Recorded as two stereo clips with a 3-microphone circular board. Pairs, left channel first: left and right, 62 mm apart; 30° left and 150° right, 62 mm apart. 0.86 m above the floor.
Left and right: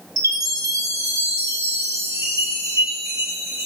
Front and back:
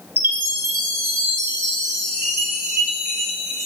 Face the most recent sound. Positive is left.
turn(degrees=-95)